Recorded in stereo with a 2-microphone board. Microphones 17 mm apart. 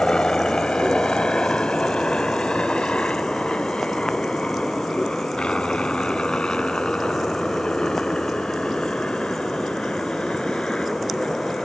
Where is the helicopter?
60° left (ahead or behind); by 11.6 s 75° left (ahead or behind).